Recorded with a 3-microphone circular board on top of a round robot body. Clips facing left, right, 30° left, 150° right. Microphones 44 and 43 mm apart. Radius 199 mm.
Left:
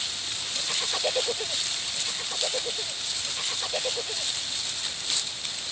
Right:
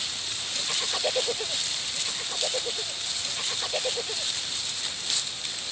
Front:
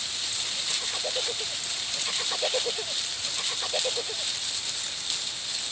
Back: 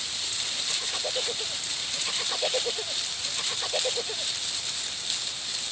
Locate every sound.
Only background noise.